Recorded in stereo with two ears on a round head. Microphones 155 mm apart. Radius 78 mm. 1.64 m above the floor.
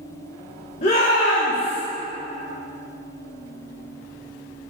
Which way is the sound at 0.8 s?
40° left (ahead or behind).